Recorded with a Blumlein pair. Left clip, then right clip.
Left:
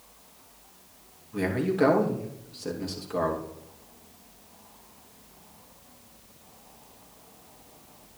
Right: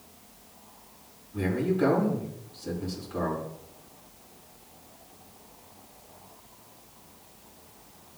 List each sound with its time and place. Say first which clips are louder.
1.3 s a man speaking: left 2 dB; 40° left, 3 m